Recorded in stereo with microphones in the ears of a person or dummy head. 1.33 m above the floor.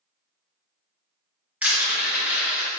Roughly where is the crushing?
Centre.